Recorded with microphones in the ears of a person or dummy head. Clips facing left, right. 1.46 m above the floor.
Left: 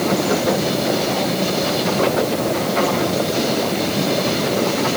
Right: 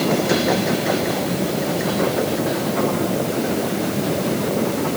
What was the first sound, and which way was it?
Only background noise.